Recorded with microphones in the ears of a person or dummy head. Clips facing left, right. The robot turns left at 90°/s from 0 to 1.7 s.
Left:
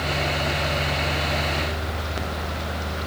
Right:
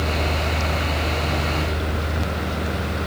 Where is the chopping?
No chopping in this recording.